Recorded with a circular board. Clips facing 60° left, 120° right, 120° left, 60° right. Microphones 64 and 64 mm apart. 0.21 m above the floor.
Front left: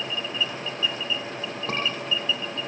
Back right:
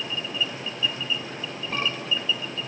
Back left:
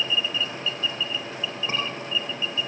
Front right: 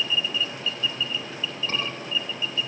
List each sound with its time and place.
1.7 s a scream: 50° left, 9 m